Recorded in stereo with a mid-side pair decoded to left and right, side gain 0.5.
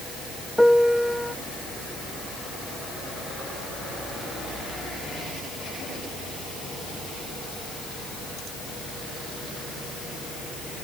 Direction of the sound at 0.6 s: Straight ahead.